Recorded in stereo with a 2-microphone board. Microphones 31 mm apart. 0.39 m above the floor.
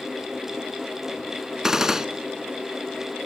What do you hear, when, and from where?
1.6 s a gunshot: 20° right (ahead or behind), 1.3 m